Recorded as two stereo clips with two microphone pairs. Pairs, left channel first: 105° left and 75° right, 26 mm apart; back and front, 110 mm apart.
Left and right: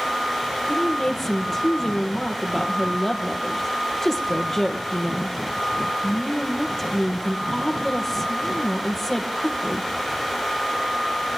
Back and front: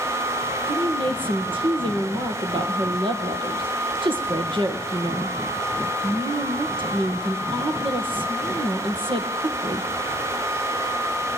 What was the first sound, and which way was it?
A woman speaking, 30° left.